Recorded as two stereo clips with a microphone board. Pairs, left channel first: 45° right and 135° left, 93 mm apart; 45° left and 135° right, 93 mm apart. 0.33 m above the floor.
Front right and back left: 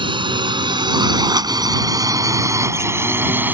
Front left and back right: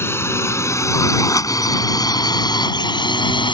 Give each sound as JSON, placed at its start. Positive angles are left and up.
{"t": 0.0, "sound": "a drone", "azimuth_deg": 110}